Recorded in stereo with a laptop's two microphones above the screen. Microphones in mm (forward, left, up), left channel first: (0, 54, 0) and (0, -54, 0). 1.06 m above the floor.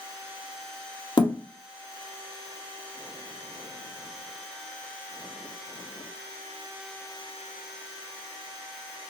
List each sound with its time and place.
1.2 s a thud: 45° left (ahead or behind), 0.5 m